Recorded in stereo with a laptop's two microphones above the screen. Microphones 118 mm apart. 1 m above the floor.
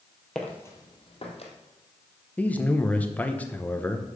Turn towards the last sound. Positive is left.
turn(degrees=15)  # may be behind; listen again after turning